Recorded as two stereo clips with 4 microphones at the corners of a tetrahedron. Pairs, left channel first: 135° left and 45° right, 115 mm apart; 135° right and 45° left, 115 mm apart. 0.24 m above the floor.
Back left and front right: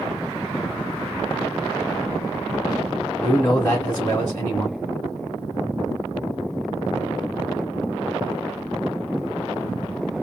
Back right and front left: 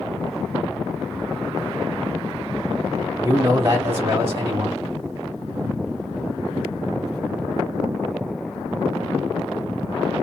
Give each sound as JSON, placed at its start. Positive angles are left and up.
{"t": 3.2, "sound": "a man speaking", "azimuth_deg": 90, "distance_m": 1.5}